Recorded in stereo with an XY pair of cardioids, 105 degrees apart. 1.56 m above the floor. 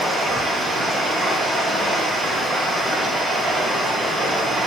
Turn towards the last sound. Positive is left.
turn(degrees=-30)